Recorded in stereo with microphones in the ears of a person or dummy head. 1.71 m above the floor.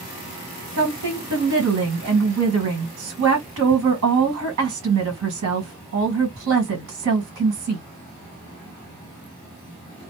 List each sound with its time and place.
0.8 s a woman speaking: 70° right (ahead or behind), 1.6 m